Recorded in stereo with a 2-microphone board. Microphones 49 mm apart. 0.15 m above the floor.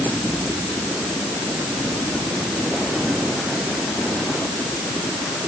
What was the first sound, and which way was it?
Only background noise.